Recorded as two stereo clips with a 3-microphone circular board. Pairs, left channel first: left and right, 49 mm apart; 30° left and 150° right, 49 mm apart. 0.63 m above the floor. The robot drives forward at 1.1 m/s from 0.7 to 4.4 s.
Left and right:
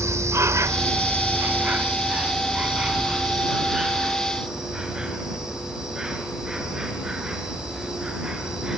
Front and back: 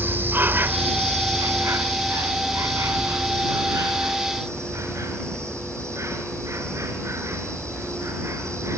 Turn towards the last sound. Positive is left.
turn(degrees=-170)